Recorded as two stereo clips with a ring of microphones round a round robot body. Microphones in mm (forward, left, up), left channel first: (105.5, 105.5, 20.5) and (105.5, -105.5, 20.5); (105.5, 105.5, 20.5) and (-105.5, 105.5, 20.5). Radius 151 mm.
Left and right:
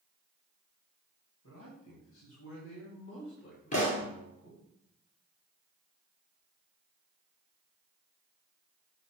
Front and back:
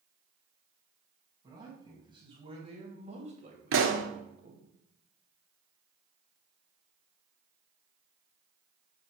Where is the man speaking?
110° left, 3.5 m; by 4.6 s 150° left, 2 m.